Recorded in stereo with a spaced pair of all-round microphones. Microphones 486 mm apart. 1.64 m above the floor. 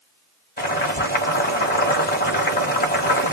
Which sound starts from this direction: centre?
Boiling, at 0.6 s.